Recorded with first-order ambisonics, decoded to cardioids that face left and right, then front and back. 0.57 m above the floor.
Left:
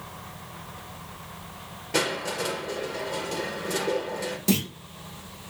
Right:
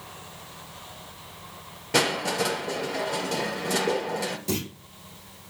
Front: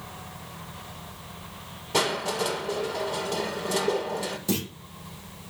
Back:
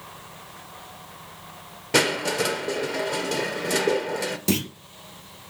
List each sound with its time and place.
1.9 s crushing: 165° right, 3.5 m
4.5 s a clunk: 155° left, 4 m